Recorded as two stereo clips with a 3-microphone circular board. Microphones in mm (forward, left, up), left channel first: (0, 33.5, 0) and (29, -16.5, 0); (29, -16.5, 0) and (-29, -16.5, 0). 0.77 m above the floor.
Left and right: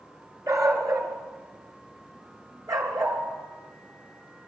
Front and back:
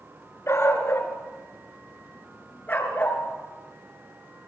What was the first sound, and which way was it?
A dog barking, 45° right.